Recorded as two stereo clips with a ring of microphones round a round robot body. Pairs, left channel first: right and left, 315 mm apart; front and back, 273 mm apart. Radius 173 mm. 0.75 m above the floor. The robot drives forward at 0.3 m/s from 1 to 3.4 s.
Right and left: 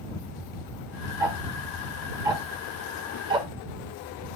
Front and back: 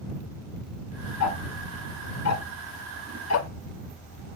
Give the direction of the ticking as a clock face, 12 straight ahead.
12 o'clock.